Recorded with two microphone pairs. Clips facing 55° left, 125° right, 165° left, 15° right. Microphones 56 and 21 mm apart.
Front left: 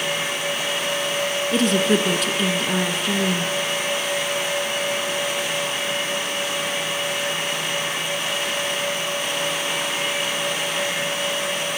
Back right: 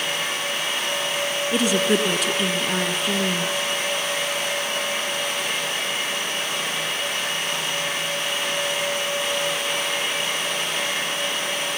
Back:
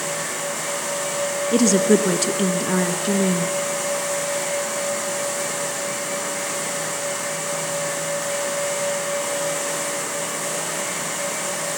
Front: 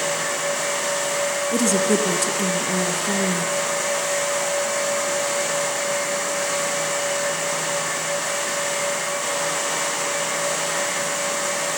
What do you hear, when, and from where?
1.5 s a woman speaking: 150° left, 1.8 m